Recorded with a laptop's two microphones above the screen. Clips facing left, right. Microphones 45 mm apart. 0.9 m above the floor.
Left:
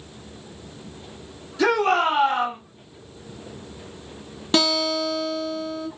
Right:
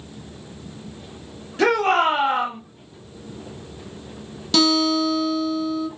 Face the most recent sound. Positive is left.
turn(degrees=30)  # may be behind; listen again after turning